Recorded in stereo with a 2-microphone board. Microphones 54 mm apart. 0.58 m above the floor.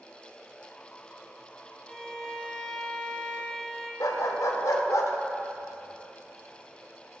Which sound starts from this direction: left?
A dog barking, at 4.0 s.